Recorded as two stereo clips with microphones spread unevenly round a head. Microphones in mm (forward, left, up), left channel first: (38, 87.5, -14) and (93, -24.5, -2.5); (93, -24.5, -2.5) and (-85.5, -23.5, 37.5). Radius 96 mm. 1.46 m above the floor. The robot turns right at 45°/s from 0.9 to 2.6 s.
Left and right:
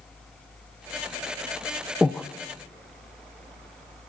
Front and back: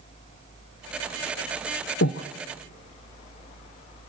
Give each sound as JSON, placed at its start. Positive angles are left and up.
{"t": 2.0, "sound": "breathing", "azimuth_deg": 25, "distance_m": 0.7}